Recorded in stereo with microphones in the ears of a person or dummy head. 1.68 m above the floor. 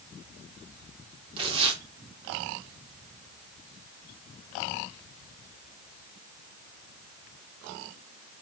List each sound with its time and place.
1.4 s tearing paper: 30° right (ahead or behind), 3 m